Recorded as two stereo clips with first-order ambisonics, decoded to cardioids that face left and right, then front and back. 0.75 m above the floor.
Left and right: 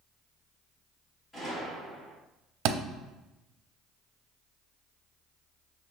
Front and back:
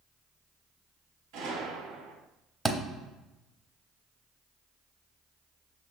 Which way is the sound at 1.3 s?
165° left.